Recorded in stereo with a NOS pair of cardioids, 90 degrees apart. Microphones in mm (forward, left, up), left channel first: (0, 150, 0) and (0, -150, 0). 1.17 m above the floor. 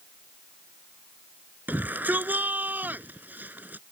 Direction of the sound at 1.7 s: 5° right.